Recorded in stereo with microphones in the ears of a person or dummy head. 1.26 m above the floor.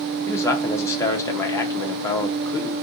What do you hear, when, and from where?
0.3 s a man speaking: 15° left (ahead or behind), 0.6 m